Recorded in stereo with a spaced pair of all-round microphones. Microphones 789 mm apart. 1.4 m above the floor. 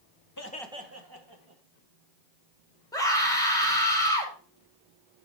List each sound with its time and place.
0.4 s laughter: 25° left (ahead or behind), 1.0 m; by 1.6 s 40° right (ahead or behind), 2 m
2.9 s a scream: 5° left (ahead or behind), 3 m